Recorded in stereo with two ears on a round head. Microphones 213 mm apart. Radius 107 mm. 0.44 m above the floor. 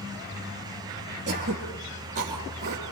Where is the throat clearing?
35° right (ahead or behind), 4.5 m.